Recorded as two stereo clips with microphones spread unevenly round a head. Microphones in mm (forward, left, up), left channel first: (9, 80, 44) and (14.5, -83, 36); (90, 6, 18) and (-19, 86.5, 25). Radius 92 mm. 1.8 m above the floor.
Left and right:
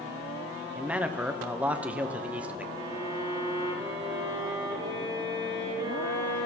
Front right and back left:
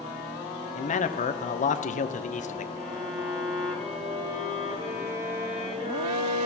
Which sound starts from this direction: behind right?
A violin, at 2.8 s.